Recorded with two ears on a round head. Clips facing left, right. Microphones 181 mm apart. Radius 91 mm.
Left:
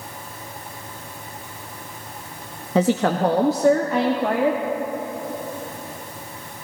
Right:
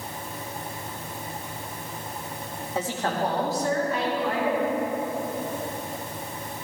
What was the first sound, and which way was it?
A woman speaking, 55° left (ahead or behind).